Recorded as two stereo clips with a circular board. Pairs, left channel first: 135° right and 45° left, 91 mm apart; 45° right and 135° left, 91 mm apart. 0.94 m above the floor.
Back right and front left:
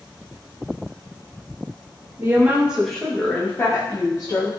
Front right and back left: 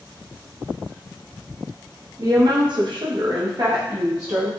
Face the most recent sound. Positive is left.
turn(degrees=-175)